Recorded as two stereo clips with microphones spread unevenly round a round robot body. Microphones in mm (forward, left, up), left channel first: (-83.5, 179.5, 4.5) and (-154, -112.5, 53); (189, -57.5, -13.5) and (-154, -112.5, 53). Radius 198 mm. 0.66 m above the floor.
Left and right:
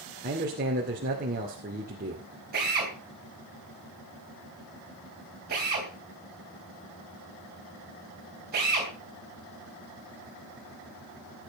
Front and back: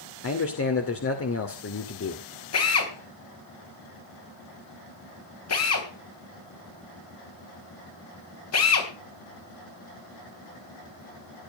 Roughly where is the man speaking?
Ahead right.